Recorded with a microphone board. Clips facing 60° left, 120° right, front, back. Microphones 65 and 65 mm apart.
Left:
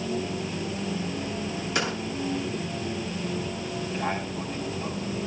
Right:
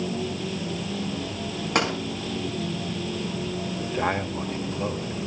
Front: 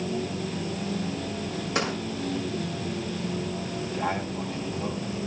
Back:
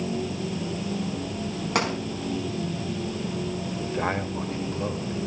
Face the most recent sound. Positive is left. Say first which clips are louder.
# right 4 dB, back 2 dB
turn(degrees=-150)